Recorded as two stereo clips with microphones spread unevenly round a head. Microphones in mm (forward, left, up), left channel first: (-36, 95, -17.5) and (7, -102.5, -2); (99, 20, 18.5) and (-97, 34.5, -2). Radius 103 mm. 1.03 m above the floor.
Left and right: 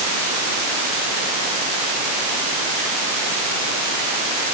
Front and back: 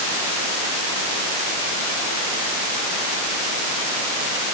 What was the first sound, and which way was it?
Only background noise.